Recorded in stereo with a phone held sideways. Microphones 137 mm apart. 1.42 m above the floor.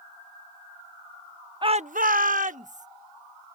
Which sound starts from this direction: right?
A shout, at 1.6 s.